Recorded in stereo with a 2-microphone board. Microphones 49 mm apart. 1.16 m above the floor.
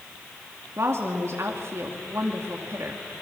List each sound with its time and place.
0.8 s a woman speaking: 65° right (ahead or behind), 1.9 m